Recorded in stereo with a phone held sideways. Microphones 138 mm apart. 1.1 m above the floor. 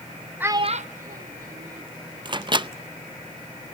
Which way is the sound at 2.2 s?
35° right (ahead or behind).